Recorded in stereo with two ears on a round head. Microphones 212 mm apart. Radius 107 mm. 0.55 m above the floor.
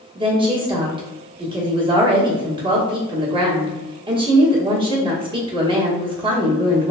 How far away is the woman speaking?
About 1.0 m.